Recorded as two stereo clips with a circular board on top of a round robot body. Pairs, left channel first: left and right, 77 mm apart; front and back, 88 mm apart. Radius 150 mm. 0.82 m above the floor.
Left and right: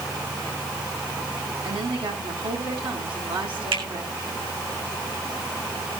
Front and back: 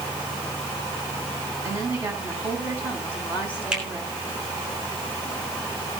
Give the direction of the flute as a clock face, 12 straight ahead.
No flute in this recording.